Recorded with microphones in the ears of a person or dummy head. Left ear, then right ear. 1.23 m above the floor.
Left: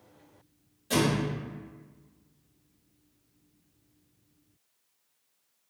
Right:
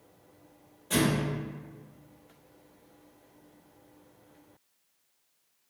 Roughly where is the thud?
Left.